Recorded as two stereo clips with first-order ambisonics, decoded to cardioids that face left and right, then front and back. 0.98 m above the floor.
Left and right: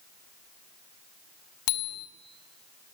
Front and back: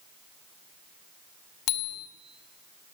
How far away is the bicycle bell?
About 2.5 m.